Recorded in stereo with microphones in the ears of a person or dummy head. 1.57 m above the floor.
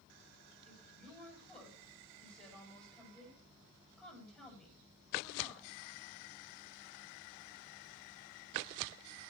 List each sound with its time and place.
0.7 s a woman speaking: 5° left (ahead or behind), 8 m